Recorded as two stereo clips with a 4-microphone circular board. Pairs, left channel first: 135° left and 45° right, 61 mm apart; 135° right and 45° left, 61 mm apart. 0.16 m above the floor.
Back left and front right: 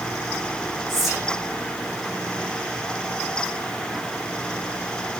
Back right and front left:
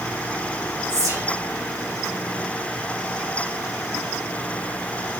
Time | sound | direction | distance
0.9 | whispering | 45° left | 7.5 m